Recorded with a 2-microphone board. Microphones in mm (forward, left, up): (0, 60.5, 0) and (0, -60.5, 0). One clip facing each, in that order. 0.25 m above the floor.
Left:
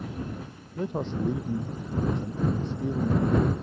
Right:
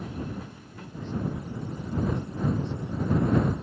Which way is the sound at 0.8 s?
70° left (ahead or behind).